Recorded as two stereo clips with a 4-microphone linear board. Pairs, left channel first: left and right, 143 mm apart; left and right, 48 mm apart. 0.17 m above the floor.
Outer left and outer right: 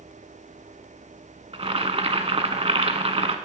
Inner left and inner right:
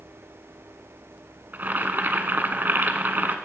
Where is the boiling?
45° right (ahead or behind), 0.7 m.